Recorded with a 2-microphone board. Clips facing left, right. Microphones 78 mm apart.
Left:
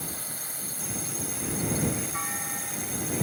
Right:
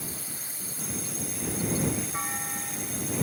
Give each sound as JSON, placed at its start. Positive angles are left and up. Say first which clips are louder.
{"t": 0.0, "sound": "a drone", "louder": "left 1 dB", "side_deg": 50}
{"t": 2.1, "sound": "a clunk", "louder": "even", "side_deg": -10}